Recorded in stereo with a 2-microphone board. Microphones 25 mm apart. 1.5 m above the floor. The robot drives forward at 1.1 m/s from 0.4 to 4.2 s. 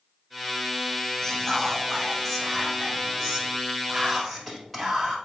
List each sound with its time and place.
1.2 s whispering: 20° left (ahead or behind), 1.6 m; by 5.2 s 5° left (ahead or behind), 4.5 m